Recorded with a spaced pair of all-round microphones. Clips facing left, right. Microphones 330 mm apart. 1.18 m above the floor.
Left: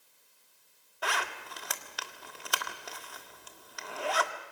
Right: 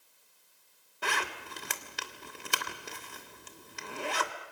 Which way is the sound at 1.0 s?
35° right (ahead or behind).